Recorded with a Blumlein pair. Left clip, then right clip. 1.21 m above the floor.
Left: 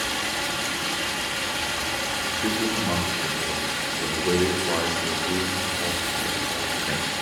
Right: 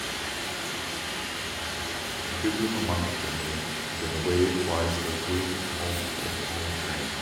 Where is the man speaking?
10° left, 1.0 m.